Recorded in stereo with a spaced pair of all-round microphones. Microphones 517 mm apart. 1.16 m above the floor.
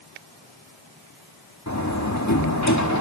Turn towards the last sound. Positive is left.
turn(degrees=30)  # may be behind; listen again after turning